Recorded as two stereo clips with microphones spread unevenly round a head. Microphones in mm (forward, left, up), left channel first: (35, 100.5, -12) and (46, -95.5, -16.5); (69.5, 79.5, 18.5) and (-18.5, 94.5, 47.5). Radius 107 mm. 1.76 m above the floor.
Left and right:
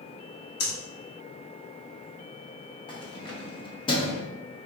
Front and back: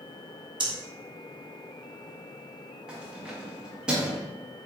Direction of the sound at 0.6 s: 140° left.